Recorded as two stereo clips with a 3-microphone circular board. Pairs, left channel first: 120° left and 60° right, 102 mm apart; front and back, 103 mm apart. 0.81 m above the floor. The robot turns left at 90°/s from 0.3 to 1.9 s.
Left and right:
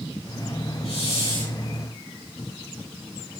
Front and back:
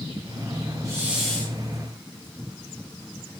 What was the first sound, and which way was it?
A hiss, 125° left.